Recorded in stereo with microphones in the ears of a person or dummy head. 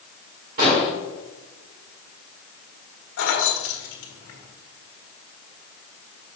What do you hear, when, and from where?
0.6 s an explosion: 50° right (ahead or behind), 2 m
3.2 s keys jangling: 70° left (ahead or behind), 1.2 m